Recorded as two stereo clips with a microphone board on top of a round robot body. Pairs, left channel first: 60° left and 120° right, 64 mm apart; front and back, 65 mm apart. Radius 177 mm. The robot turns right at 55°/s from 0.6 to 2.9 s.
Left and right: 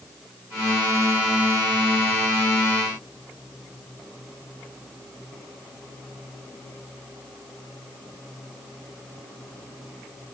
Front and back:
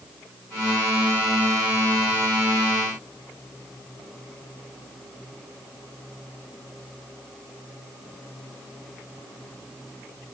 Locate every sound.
Only background noise.